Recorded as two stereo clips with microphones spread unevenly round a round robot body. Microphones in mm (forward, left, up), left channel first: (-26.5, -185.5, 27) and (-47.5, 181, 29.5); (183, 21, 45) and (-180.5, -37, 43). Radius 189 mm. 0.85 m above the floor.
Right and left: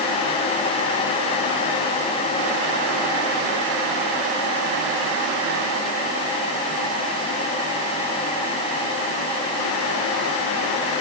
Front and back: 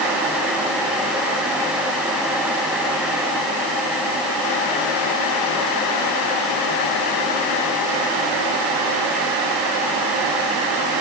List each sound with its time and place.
Only background noise.